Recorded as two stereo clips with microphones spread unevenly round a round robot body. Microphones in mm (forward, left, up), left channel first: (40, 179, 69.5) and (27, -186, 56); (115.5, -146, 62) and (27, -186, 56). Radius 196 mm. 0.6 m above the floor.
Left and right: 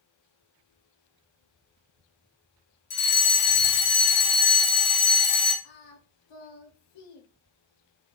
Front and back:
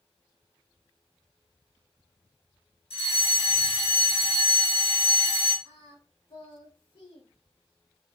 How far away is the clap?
I don't hear a clap.